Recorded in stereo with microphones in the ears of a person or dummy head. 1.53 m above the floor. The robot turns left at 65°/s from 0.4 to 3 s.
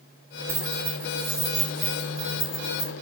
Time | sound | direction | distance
0.5 | keys jangling | 75° right (ahead or behind) | 3 m